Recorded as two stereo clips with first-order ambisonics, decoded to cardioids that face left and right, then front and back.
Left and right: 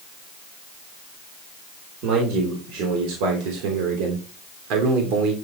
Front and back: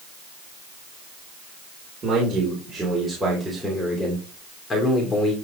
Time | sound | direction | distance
2.0 | a man speaking | 110° right | 3 m